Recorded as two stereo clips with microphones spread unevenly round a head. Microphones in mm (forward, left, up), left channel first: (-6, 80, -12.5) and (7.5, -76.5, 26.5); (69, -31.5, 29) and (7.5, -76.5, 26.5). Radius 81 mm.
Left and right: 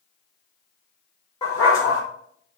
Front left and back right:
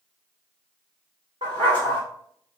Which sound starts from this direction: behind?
A dog barking, at 1.4 s.